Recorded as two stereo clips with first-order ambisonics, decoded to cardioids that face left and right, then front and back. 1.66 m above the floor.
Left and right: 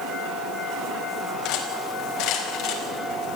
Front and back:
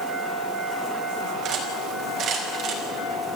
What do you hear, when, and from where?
1.4 s cutlery clinking: 130° left, 4.5 m